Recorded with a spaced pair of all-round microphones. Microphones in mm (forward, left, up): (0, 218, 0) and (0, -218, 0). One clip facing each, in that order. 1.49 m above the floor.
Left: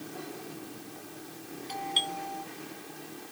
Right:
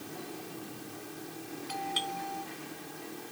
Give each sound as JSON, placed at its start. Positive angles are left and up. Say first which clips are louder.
{"t": 1.7, "sound": "a doorbell", "louder": "left 2 dB", "side_deg": -25}